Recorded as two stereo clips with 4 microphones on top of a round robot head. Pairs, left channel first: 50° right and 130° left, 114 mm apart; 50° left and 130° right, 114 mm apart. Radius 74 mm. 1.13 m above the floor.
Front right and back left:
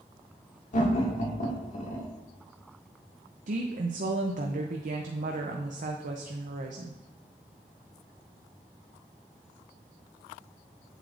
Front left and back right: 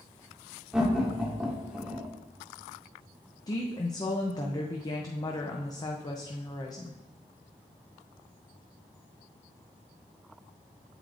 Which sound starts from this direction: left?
A woman speaking, at 3.5 s.